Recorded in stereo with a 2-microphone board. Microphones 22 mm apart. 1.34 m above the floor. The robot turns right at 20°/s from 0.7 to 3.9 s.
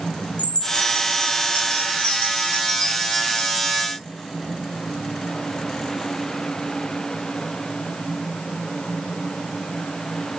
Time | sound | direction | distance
0.4 | a chime | 85° left | 5.5 m